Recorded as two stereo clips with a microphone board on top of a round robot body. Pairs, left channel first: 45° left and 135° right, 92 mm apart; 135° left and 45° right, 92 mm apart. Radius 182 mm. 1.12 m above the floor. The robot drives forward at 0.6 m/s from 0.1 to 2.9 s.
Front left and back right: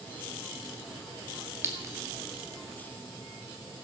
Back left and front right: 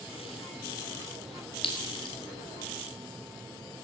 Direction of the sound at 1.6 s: 160° left.